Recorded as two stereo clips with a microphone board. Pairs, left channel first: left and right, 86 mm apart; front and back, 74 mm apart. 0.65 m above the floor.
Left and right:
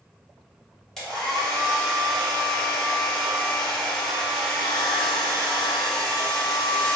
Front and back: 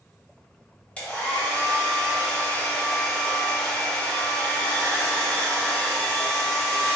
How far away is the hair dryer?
About 1.0 m.